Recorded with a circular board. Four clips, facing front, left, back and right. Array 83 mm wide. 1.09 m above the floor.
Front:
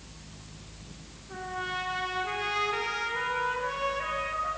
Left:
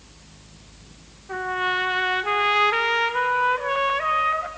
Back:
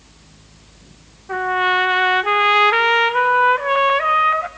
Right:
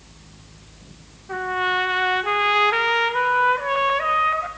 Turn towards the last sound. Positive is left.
turn(degrees=-175)